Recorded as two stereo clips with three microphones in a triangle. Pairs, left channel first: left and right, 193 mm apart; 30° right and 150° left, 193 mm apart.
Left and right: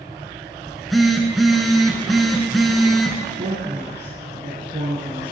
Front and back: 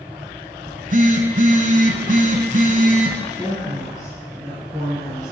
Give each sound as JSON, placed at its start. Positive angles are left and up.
{"t": 0.7, "sound": "a phone buzzing", "azimuth_deg": 180, "distance_m": 0.8}
{"t": 3.3, "sound": "a woman speaking", "azimuth_deg": -135, "distance_m": 3.0}